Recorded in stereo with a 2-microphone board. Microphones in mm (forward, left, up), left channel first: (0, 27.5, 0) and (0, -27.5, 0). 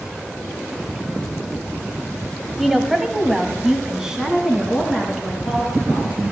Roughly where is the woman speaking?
Centre.